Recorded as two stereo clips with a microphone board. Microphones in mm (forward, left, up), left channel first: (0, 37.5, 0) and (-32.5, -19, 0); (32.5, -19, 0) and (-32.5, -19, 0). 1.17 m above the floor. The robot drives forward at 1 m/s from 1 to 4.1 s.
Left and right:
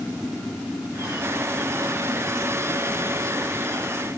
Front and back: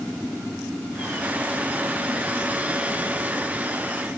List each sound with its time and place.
Only background noise.